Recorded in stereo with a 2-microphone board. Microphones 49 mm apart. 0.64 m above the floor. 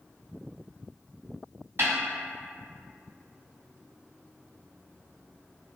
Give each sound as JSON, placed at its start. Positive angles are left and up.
{"t": 1.8, "sound": "a snare drum", "side_deg": -55, "distance_m": 1.8}